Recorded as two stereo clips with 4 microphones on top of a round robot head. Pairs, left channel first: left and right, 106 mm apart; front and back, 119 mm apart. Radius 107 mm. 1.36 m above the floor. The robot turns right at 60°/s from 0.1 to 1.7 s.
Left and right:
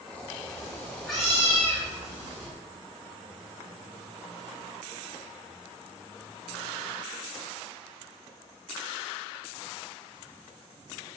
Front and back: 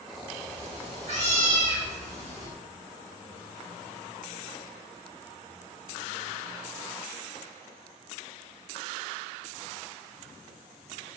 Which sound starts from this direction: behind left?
A cat meowing, at 0.5 s.